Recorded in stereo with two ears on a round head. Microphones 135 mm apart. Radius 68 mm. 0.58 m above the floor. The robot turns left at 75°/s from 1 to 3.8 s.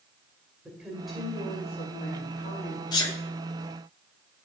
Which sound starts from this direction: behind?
A woman speaking, at 0.7 s.